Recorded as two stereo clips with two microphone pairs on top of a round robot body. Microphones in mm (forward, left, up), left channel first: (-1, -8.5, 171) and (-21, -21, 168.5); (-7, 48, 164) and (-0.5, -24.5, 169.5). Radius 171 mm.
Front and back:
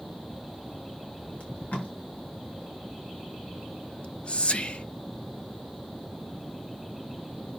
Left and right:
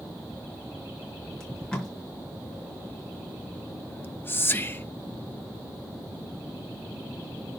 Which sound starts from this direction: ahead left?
Whispering, at 3.9 s.